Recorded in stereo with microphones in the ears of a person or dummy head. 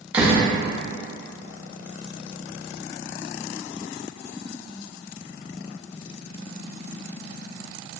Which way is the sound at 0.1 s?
10° right (ahead or behind).